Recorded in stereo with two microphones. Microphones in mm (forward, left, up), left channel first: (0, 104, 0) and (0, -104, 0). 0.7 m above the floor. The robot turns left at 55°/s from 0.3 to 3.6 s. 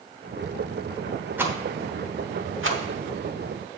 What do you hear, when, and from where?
1.4 s a rattle: 10° right (ahead or behind), 1.0 m; by 3.8 s 50° right (ahead or behind), 1.0 m